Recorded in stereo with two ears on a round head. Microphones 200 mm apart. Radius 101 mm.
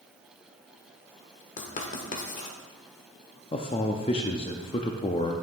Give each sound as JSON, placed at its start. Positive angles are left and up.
{"t": 1.6, "sound": "writing", "side_deg": 35, "distance_m": 1.1}
{"t": 3.5, "sound": "a man speaking", "side_deg": 25, "distance_m": 0.6}